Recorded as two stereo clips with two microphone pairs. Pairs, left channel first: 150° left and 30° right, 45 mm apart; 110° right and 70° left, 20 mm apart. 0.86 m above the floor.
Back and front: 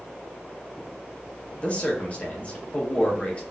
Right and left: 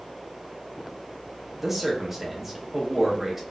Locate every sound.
1.6 s a man speaking: 130° left, 1.0 m